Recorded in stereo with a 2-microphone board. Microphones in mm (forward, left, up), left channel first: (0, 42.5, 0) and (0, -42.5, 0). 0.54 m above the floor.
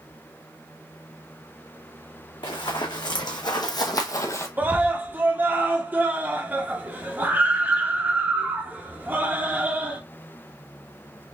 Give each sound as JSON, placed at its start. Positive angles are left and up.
{"t": 2.4, "sound": "running footsteps", "side_deg": 65, "distance_m": 1.6}
{"t": 4.6, "sound": "a scream", "side_deg": -20, "distance_m": 0.8}